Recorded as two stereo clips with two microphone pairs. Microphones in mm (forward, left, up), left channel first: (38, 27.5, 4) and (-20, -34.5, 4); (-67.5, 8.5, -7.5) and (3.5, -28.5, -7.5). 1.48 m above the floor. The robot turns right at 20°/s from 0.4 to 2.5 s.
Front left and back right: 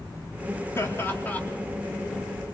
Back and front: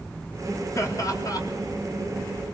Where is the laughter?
105° left, 4 m; by 1.4 s 120° left, 4 m.